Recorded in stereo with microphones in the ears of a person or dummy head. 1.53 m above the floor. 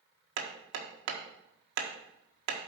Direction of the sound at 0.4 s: 65° right (ahead or behind).